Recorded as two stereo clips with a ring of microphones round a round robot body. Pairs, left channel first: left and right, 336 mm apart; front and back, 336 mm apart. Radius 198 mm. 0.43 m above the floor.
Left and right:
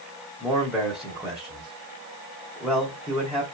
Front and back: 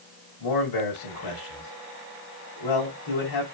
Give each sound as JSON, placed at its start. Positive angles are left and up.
{"t": 0.4, "sound": "a man speaking", "azimuth_deg": 0, "distance_m": 3.0}